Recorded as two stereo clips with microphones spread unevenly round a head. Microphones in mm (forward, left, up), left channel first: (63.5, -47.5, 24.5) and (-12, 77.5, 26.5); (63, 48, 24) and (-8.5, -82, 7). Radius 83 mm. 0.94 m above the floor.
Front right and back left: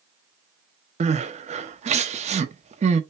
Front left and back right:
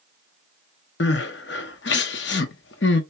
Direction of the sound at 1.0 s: 75° left.